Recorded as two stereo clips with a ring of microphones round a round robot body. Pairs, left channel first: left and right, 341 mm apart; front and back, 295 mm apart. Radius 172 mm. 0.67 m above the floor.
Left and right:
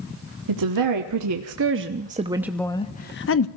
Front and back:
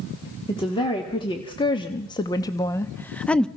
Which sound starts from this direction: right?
A woman speaking, at 0.5 s.